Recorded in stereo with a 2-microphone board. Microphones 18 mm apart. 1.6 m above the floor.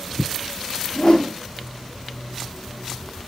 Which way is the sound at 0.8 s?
70° left (ahead or behind).